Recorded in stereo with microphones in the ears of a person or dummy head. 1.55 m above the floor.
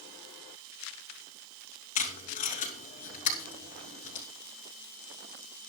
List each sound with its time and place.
1.9 s tape being pulled: 40° left (ahead or behind), 4 m